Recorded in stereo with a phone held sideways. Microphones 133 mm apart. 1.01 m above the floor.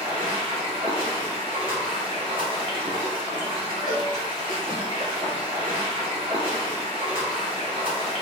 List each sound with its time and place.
0.0 s running water: 40° right (ahead or behind), 0.9 m
3.9 s a cowbell: 85° left, 0.7 m